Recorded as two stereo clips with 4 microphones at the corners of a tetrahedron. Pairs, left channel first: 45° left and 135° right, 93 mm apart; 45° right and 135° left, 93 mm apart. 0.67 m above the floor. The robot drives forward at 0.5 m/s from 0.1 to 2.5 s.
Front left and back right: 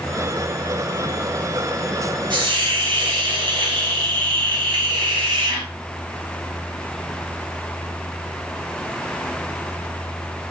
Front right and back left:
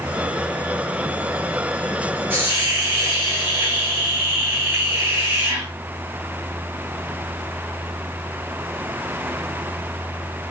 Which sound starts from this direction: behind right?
A hiss, at 2.3 s.